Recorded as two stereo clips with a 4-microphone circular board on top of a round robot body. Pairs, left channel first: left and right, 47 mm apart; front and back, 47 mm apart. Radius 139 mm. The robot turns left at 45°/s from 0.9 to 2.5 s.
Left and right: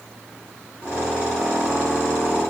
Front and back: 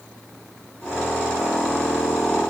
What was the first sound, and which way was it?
Only background noise.